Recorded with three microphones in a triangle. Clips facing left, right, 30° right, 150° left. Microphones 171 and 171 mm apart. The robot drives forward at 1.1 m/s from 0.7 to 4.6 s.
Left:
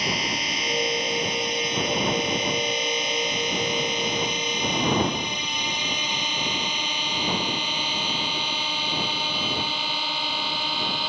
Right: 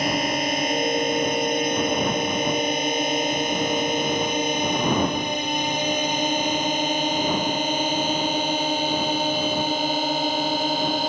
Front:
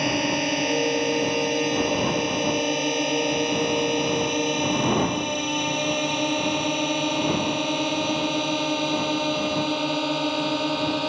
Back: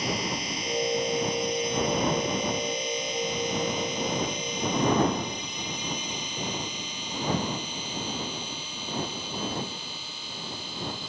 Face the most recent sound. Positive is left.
turn(degrees=-45)